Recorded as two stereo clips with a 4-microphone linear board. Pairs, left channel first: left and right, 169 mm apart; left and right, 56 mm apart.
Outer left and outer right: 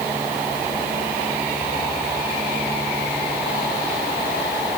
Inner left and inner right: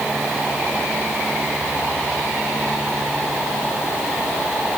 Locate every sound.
Only background noise.